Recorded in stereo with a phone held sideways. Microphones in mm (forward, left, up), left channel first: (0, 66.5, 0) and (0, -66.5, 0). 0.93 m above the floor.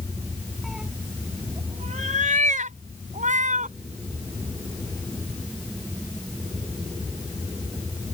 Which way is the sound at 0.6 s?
Centre (ahead or behind).